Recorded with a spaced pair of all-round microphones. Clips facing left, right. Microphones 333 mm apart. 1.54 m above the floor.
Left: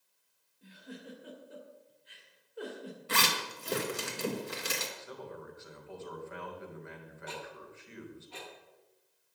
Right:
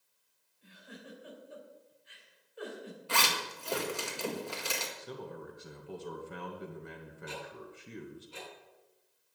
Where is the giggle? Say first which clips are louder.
Left 4 dB; 55° left (ahead or behind), 3 m.